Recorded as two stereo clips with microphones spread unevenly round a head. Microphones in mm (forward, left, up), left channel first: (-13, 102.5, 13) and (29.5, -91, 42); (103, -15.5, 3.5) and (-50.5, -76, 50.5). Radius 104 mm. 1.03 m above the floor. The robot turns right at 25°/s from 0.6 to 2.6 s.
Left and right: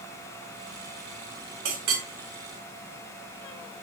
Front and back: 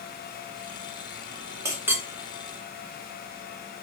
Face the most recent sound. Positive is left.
turn(degrees=-70)